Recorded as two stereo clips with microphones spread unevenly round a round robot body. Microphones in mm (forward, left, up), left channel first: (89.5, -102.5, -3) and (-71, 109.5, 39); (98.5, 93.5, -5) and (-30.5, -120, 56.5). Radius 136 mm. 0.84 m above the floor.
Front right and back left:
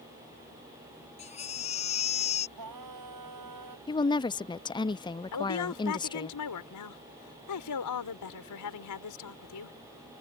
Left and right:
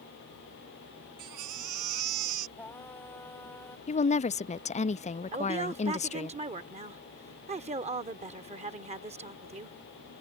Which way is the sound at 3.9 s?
10° left.